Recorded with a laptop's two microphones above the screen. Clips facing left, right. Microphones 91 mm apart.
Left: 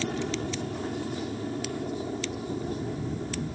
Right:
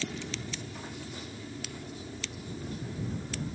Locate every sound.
0.0 s an aircraft: 50° left (ahead or behind)